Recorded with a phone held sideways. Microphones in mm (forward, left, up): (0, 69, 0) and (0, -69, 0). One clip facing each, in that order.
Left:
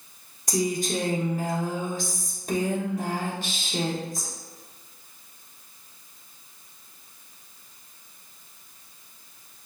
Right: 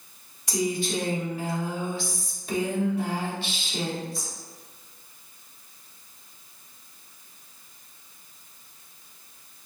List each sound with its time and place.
0.5 s a woman speaking: 45° left (ahead or behind), 1.2 m